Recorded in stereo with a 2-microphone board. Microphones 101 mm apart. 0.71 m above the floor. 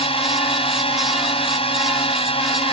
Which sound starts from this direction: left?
A drone, at 0.0 s.